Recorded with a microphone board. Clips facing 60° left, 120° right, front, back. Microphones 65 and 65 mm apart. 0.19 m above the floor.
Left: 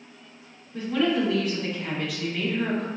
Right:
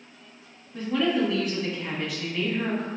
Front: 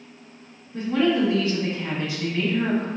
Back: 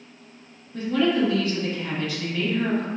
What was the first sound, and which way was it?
A woman speaking, 30° right.